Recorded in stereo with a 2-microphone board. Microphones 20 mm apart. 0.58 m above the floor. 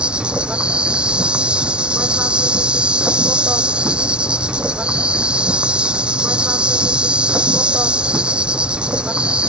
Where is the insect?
55° right (ahead or behind).